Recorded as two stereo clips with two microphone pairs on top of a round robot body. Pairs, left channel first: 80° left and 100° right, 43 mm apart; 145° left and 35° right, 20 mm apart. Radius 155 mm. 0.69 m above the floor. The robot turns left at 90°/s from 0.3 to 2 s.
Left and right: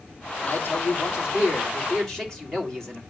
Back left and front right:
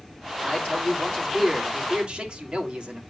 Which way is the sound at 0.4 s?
140° left.